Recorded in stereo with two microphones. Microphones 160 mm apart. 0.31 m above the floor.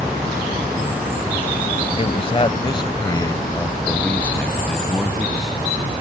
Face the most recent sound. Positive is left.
turn(degrees=-5)  # may be behind; listen again after turning